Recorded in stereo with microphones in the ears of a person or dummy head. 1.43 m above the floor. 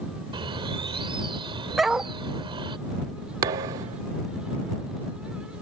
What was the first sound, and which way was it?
A bird, 25° right (ahead or behind).